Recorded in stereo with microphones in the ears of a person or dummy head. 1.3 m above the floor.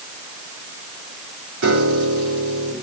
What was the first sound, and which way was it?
A piano, 65° right (ahead or behind).